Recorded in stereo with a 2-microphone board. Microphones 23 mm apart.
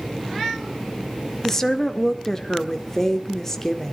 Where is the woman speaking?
20° left (ahead or behind), 1.7 m.